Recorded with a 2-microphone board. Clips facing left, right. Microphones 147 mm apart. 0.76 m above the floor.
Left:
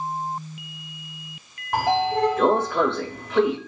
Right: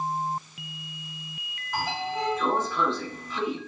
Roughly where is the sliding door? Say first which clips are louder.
Left 9 dB; left.